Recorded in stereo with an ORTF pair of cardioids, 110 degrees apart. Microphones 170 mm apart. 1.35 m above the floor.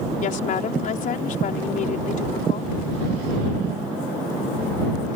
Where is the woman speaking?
55° left.